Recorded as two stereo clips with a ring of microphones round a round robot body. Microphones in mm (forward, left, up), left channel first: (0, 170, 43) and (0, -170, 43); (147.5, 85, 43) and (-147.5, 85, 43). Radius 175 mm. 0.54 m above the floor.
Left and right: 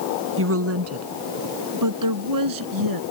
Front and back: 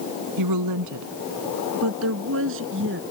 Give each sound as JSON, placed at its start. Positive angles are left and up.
{"t": 0.4, "sound": "a woman speaking", "azimuth_deg": -145}